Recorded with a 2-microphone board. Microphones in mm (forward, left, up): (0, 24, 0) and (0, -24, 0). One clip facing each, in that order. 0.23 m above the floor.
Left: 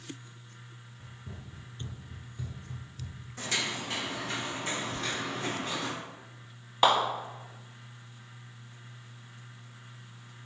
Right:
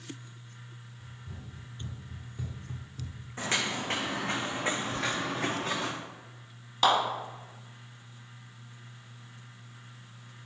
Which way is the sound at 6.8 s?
20° left (ahead or behind).